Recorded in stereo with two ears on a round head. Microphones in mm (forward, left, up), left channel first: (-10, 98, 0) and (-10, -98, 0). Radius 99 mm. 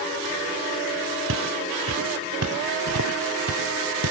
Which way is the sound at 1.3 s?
60° right (ahead or behind).